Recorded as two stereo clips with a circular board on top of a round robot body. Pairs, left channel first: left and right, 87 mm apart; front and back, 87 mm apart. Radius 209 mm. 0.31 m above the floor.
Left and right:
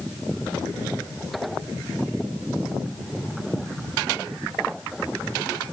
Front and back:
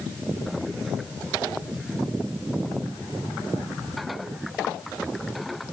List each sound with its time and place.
Only background noise.